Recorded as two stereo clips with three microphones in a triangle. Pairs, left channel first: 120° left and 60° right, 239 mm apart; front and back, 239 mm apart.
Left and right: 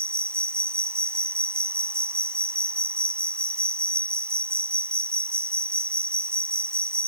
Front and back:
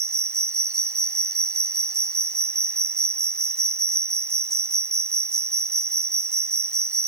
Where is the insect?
140° right.